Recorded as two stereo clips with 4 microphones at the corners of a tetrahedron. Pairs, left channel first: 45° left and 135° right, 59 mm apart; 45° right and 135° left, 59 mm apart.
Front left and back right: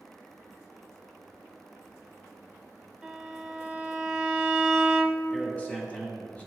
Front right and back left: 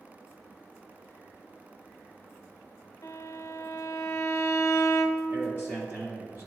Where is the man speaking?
100° left, 1.9 m.